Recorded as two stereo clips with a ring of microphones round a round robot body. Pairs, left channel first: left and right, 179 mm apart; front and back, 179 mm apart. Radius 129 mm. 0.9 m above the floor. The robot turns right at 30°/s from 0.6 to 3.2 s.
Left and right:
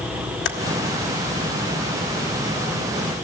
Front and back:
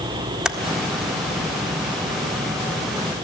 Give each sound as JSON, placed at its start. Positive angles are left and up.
{"t": 0.5, "sound": "typing on a keyboard", "azimuth_deg": 95, "distance_m": 1.7}